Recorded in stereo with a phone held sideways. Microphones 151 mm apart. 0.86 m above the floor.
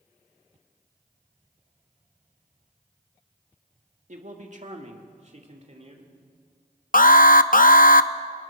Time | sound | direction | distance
4.1 | a man speaking | 55° right (ahead or behind) | 1.6 m
6.9 | an alarm | 65° left (ahead or behind) | 0.6 m